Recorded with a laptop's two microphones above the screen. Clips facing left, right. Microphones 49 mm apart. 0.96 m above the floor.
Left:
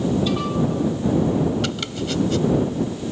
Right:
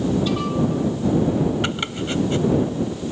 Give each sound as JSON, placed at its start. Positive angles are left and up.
{"t": 1.6, "sound": "chopping", "side_deg": -30}